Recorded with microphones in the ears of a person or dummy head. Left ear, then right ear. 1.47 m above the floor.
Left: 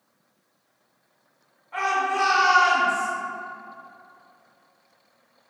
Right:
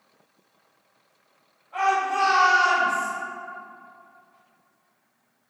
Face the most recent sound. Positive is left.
turn(degrees=65)  # may be behind; listen again after turning